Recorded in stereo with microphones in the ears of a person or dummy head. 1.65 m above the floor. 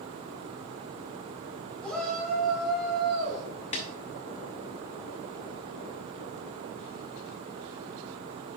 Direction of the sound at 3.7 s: 25° left (ahead or behind).